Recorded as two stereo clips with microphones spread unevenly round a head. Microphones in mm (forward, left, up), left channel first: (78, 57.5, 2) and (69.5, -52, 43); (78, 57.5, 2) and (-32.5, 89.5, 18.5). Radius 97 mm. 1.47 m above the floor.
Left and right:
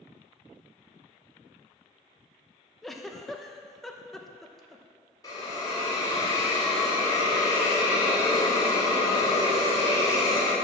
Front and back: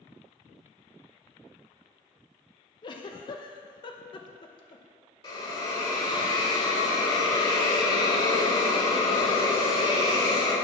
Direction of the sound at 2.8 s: 40° right.